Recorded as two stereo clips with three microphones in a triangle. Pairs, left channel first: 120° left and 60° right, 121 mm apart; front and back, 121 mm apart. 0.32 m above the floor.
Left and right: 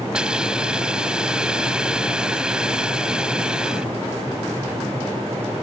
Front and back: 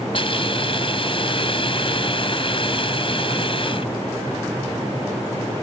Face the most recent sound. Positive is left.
turn(degrees=20)